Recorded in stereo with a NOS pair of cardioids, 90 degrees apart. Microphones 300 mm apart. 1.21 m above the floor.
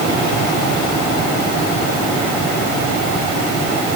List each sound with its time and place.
Only background noise.